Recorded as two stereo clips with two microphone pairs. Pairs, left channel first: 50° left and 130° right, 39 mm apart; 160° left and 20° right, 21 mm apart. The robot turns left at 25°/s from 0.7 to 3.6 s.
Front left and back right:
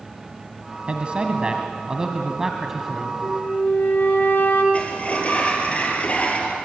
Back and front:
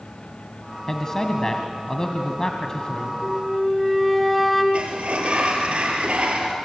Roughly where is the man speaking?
Behind right.